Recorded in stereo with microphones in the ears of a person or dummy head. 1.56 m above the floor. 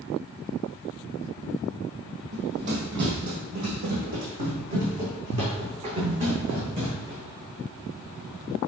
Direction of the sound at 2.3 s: 50° right (ahead or behind).